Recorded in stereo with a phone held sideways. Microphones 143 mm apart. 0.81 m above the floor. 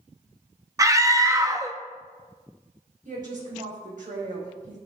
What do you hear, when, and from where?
0.8 s a scream: 25° right (ahead or behind), 0.7 m
3.0 s a woman speaking: 70° right (ahead or behind), 4.5 m